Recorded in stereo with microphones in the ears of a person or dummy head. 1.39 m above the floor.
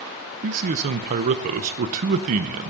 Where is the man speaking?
45° right (ahead or behind), 0.6 m.